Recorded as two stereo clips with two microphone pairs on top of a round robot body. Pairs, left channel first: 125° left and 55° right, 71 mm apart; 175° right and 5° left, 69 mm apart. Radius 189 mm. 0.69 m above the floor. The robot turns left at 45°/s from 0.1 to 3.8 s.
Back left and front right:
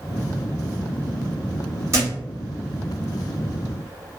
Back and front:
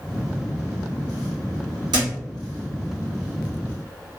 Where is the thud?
5° right, 1.4 m; by 2.1 s 15° right, 1.4 m.